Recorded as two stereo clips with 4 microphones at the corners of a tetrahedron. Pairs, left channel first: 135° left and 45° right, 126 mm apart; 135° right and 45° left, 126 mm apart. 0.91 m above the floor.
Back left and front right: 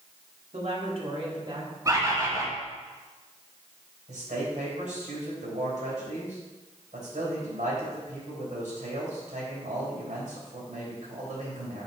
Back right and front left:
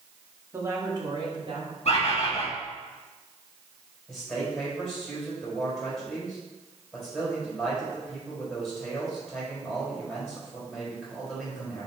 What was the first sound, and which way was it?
A woman speaking, 25° right.